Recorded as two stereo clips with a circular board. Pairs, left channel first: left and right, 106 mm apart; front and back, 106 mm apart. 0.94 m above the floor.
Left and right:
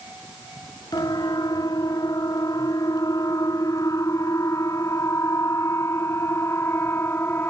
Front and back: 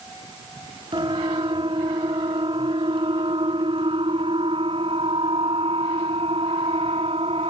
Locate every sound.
0.9 s a siren: 140° left; by 7.5 s 160° left